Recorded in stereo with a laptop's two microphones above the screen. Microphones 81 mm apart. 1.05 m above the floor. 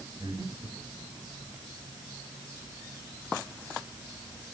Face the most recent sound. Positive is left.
turn(degrees=-55)  # may be behind; listen again after turning